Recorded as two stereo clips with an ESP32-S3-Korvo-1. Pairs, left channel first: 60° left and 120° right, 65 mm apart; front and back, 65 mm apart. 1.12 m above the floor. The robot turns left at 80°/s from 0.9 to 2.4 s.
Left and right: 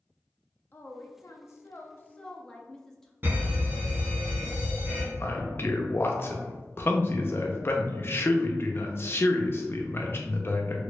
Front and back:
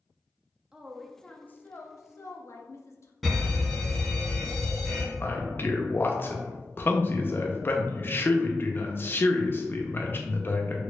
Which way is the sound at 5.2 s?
30° left.